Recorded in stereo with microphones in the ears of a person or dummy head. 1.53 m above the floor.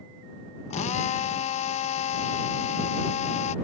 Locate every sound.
0.7 s a drill: 35° left (ahead or behind)